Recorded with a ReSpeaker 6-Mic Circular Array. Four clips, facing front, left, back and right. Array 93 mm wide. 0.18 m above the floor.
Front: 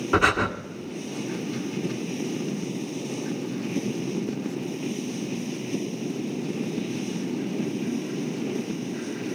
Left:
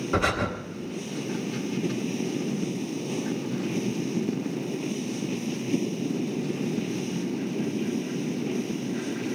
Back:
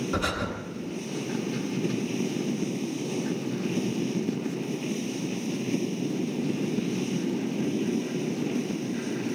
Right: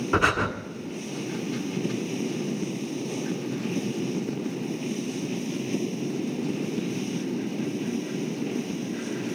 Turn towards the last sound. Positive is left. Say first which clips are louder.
# right 2 dB, front 11 dB
turn(degrees=-30)